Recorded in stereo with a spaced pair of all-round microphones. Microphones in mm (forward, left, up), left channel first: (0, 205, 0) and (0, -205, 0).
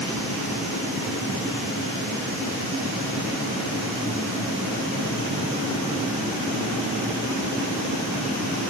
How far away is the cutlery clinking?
No cutlery clinking in this recording.